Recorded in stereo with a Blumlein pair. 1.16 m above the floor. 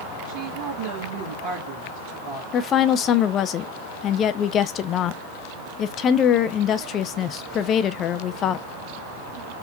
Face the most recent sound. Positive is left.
turn(degrees=30)